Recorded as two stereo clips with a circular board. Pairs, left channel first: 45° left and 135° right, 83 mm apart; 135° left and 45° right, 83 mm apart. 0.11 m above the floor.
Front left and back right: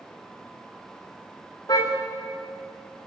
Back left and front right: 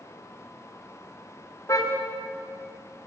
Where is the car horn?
85° left, 5.5 m.